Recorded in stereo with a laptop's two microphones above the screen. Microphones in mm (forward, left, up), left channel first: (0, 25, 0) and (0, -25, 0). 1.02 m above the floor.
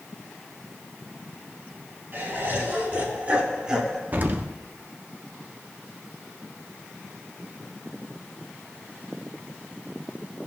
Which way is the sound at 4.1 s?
35° right (ahead or behind).